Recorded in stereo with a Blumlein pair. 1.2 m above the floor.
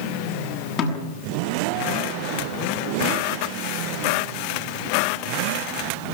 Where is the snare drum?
30° left, 7 m.